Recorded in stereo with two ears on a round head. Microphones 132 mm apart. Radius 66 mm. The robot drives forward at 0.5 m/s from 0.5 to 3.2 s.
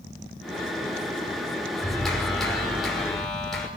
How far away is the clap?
About 5 m.